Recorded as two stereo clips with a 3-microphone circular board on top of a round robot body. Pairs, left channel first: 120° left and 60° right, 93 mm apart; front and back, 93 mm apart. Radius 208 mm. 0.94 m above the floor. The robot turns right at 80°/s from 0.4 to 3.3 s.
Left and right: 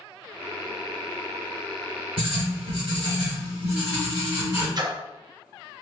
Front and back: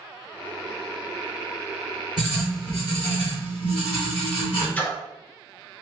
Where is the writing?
90° right, 0.9 m; by 4.7 s straight ahead, 0.9 m.